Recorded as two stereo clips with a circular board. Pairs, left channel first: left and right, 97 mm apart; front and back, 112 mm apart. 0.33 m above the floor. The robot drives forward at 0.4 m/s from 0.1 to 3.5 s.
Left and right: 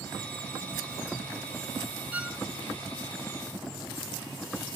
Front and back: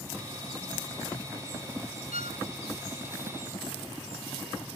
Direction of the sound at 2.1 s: 165° right.